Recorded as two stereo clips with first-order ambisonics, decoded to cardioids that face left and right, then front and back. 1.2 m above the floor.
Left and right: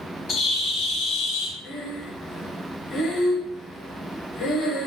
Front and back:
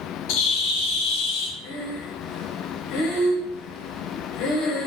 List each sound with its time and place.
0.3 s a bird: 25° left, 0.7 m
1.6 s breathing: 20° left, 0.9 m